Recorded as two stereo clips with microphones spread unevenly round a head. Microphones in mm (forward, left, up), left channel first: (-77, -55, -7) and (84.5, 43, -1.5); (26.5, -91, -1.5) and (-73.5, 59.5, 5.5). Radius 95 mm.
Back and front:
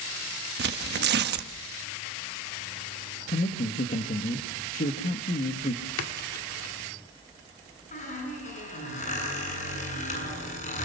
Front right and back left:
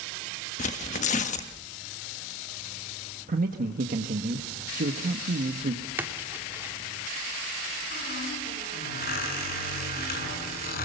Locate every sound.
0.6 s tearing paper: 5° right, 1.4 m
3.3 s a man speaking: 165° left, 1.6 m
6.0 s a splash: 155° right, 2.0 m
7.9 s a squeak: 95° right, 7.5 m